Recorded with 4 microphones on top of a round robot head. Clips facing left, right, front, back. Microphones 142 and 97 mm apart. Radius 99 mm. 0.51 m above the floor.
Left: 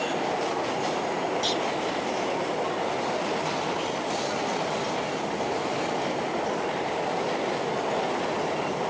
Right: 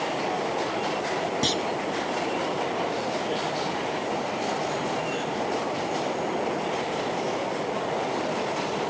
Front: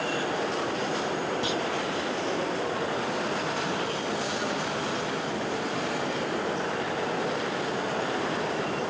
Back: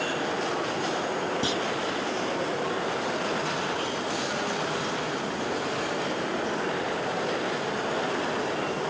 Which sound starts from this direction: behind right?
A clunk, at 1.4 s.